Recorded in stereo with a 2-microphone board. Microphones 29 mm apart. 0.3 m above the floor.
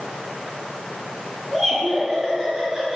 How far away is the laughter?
About 3.5 m.